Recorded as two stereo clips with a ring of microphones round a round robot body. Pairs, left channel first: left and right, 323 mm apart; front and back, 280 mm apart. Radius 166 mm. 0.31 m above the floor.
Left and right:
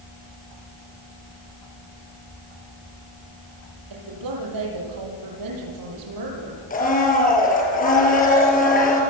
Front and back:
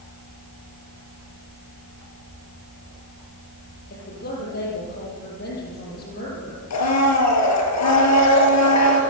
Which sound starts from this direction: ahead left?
A blender, at 6.7 s.